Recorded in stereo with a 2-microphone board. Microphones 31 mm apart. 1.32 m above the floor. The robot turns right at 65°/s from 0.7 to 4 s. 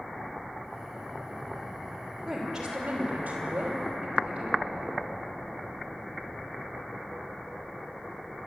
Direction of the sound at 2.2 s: 175° left.